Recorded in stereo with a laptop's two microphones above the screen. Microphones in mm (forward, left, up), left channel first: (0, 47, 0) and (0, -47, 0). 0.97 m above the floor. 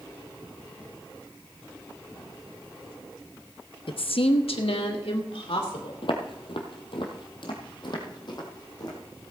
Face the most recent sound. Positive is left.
turn(degrees=45)  # may be behind; listen again after turning